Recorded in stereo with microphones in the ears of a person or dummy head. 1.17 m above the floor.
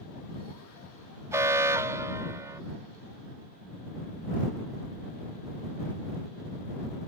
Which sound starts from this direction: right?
An alarm, at 1.3 s.